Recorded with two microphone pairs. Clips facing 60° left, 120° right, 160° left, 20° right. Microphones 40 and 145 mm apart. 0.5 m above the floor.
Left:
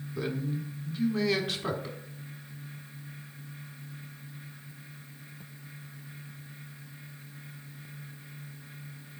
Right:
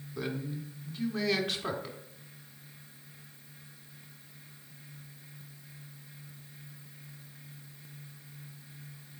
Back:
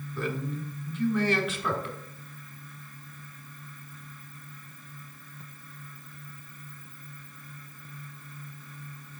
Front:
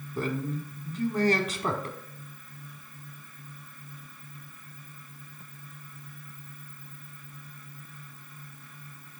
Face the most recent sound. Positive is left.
turn(degrees=-30)